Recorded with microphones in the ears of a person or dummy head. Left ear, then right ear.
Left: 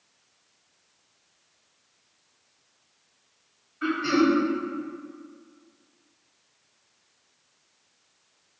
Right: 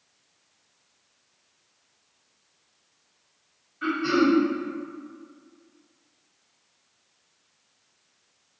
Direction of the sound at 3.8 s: 5° left (ahead or behind).